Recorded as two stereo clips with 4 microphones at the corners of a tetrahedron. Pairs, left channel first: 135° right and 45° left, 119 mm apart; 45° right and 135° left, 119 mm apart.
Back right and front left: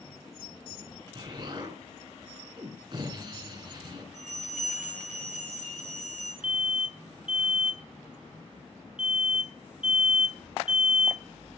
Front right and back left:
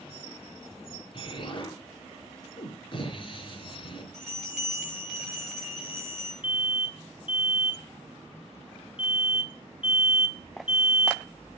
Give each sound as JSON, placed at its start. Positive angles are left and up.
{"t": 1.1, "sound": "an explosion", "azimuth_deg": -5, "distance_m": 4.5}
{"t": 4.1, "sound": "a bell", "azimuth_deg": 40, "distance_m": 5.5}
{"t": 6.4, "sound": "an alarm", "azimuth_deg": -35, "distance_m": 1.5}